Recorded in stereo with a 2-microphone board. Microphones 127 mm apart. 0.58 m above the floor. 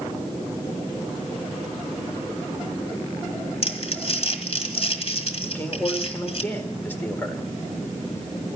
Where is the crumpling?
55° left (ahead or behind), 1.8 m.